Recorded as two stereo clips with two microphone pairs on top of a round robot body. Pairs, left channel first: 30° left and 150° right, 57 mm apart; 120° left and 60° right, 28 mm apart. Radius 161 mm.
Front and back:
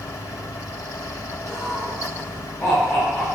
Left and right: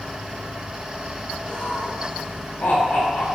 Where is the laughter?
110° left, 4 m.